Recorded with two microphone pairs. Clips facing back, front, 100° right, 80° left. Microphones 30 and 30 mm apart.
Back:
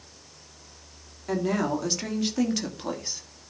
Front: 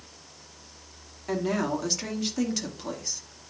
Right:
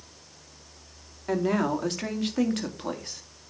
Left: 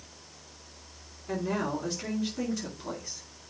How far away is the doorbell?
I don't hear a doorbell.